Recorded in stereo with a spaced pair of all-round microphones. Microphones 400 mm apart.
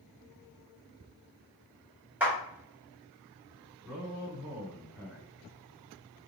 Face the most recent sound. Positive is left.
turn(degrees=-35)  # may be behind; listen again after turning